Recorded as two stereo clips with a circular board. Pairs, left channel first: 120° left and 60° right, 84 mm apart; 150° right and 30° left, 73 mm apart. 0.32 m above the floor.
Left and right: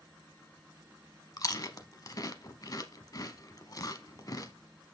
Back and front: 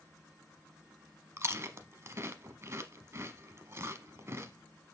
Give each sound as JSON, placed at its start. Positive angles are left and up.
{"t": 1.4, "sound": "chewing", "azimuth_deg": 80, "distance_m": 0.7}